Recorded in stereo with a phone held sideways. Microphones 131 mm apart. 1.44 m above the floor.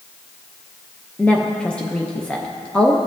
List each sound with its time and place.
1.2 s a woman speaking: 10° left (ahead or behind), 0.5 m